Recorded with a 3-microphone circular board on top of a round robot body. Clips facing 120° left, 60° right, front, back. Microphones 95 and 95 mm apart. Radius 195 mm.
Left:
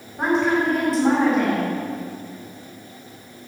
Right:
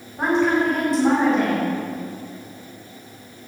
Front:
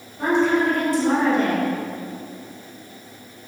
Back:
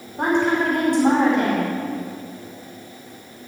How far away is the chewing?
I don't hear chewing.